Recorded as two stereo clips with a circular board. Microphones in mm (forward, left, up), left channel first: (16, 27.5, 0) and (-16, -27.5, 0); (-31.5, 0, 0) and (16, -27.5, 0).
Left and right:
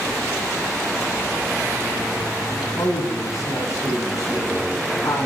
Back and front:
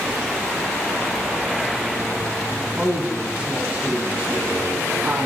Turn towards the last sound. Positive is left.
turn(degrees=35)